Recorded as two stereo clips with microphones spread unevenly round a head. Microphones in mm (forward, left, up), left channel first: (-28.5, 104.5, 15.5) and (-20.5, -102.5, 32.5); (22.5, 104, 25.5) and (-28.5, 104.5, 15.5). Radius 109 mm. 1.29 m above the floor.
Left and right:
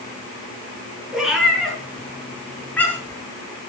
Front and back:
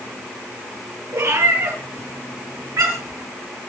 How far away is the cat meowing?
About 6.5 m.